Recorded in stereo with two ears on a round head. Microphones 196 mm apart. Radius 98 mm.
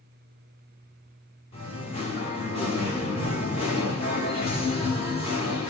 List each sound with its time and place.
1.5 s singing: 25° left (ahead or behind), 2.0 m